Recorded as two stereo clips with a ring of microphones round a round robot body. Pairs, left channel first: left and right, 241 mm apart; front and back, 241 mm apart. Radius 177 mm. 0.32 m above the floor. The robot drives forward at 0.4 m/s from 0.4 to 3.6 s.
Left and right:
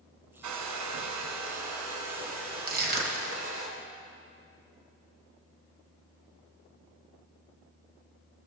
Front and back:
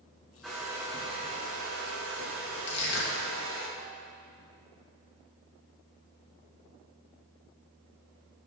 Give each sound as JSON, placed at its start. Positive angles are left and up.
{"t": 0.4, "sound": "a hair dryer", "azimuth_deg": -90, "distance_m": 0.9}
{"t": 2.7, "sound": "crushing", "azimuth_deg": -45, "distance_m": 1.7}